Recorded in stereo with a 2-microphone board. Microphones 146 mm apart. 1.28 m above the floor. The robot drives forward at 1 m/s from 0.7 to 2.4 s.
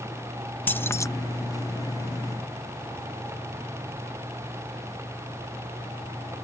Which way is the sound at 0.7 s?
15° left (ahead or behind).